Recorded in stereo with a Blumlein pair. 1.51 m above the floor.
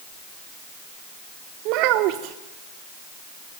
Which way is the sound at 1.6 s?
40° right.